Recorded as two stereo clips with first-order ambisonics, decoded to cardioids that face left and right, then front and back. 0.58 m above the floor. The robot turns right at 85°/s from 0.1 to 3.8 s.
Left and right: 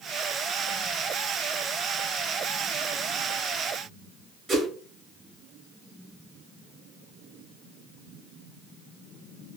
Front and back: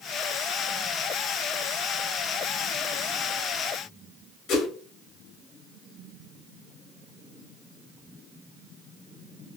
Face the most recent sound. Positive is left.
turn(degrees=-20)